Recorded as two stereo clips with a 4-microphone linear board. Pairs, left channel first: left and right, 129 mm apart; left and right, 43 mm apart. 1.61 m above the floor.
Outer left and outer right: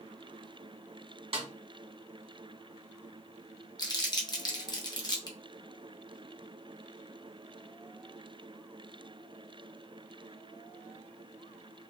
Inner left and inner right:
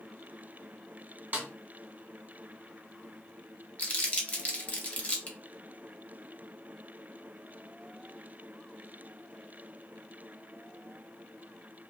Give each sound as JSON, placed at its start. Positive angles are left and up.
{"t": 1.3, "sound": "a snare drum", "side_deg": -45, "distance_m": 0.9}
{"t": 3.8, "sound": "crumpling", "side_deg": 30, "distance_m": 0.6}